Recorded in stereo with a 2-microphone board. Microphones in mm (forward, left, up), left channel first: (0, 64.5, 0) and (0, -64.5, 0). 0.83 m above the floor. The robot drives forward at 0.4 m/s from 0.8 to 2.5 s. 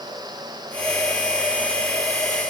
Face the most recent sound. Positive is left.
No sound to turn to.